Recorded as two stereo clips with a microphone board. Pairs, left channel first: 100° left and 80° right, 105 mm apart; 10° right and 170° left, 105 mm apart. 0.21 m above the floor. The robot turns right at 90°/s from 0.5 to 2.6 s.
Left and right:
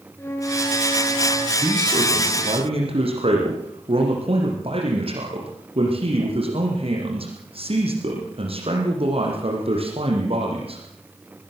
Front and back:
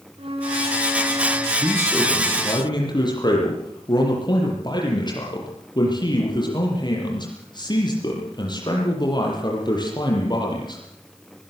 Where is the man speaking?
145° right, 7 m; by 10.8 s 55° right, 7 m.